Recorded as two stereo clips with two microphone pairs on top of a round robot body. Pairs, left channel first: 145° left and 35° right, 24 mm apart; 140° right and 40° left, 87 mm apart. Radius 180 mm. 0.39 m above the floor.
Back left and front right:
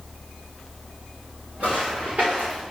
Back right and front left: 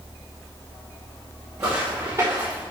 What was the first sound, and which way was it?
Footsteps, 25° right.